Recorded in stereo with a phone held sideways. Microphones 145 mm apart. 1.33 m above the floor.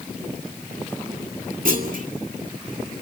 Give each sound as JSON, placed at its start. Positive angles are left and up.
{"t": 1.6, "sound": "a clunk", "side_deg": -70, "distance_m": 2.0}